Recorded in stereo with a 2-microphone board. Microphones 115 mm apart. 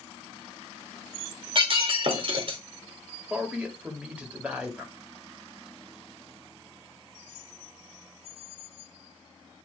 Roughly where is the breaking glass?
Right.